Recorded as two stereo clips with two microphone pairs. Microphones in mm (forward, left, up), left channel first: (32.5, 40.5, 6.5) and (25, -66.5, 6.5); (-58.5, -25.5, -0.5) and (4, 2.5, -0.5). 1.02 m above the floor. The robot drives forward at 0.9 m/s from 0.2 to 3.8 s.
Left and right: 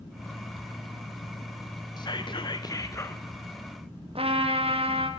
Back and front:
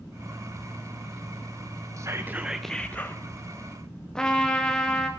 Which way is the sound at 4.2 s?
80° right.